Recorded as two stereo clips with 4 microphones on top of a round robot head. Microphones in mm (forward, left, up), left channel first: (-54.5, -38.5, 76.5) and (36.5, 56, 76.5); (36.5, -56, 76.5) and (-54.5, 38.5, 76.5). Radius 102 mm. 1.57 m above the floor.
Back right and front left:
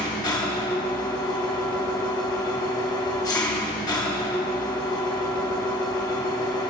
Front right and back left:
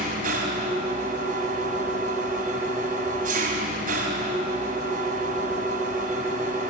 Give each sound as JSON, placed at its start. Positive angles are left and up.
{"t": 0.0, "sound": "an engine running", "azimuth_deg": 165, "distance_m": 4.0}